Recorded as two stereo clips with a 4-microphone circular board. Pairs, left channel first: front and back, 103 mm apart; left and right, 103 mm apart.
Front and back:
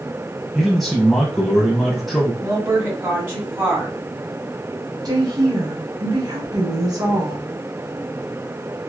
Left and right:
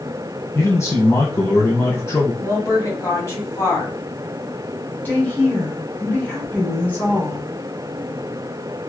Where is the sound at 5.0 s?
155° left, 1.6 m.